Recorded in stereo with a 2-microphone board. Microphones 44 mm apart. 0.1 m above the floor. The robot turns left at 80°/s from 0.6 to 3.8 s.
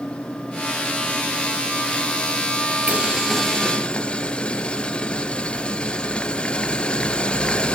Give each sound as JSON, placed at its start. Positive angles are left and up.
{"t": 2.9, "sound": "boiling", "azimuth_deg": -140, "distance_m": 1.6}